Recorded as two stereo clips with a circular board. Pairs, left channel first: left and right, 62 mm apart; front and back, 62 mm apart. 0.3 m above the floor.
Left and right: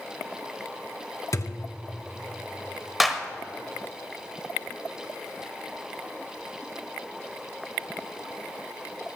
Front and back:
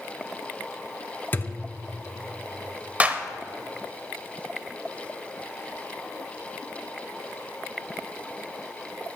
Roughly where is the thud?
Ahead left.